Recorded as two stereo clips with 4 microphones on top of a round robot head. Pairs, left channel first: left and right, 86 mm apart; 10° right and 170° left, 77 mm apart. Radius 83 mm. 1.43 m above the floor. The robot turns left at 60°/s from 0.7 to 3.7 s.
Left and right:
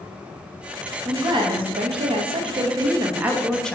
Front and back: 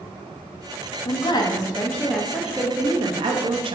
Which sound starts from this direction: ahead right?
A woman speaking, at 1.1 s.